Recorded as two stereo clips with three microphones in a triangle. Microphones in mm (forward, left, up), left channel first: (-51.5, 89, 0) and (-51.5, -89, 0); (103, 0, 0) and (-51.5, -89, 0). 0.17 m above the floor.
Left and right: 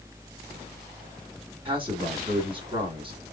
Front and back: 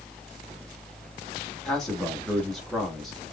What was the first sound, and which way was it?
A man speaking, 60° right.